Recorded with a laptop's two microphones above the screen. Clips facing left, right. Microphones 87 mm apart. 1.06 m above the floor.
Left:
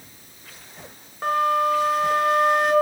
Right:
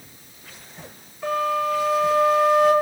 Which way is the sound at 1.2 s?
65° left (ahead or behind).